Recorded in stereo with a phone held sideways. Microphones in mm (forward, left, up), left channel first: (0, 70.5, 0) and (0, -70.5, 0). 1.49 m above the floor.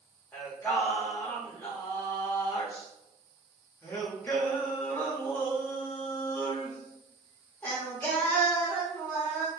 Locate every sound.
0.3 s singing: 15° left (ahead or behind), 1.0 m